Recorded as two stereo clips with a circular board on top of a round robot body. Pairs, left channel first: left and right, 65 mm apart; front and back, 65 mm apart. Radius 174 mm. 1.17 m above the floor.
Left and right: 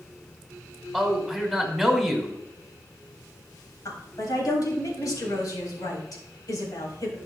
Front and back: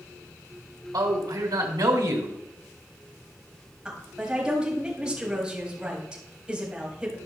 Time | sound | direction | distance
0.9 | a man speaking | straight behind | 2.5 m
3.9 | a woman speaking | 105° left | 4 m